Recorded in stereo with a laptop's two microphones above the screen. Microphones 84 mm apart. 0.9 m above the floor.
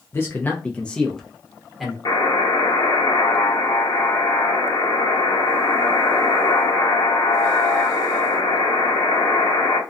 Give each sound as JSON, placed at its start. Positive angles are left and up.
{"t": 0.1, "sound": "a man speaking", "side_deg": 30, "distance_m": 0.5}
{"t": 2.0, "sound": "a buzzer", "side_deg": 60, "distance_m": 0.9}